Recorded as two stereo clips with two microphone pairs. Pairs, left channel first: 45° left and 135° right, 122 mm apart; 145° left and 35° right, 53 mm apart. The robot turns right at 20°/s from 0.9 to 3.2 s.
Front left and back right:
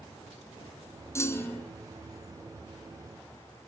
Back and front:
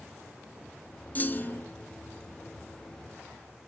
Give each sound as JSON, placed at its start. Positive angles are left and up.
{"t": 1.1, "sound": "a clunk", "azimuth_deg": 105, "distance_m": 1.3}